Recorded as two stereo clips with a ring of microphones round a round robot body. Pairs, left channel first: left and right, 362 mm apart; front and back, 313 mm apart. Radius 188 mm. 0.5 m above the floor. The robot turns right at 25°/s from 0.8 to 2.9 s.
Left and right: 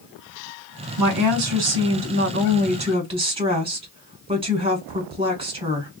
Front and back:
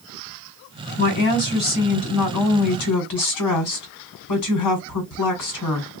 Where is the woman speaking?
65° right, 1.8 m; by 5.9 s 15° right, 1.8 m.